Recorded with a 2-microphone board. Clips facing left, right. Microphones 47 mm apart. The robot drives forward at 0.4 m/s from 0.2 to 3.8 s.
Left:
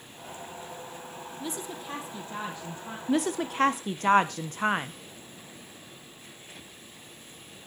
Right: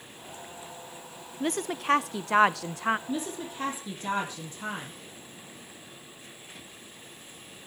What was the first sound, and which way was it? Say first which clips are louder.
A woman speaking: right 8 dB; 50° right (ahead or behind).